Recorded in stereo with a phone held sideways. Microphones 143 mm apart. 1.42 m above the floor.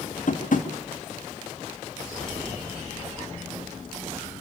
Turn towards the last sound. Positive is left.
turn(degrees=65)  # may be behind; listen again after turning